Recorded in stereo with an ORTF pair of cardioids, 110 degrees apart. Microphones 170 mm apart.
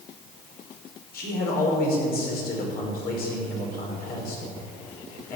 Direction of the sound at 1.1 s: 65° left.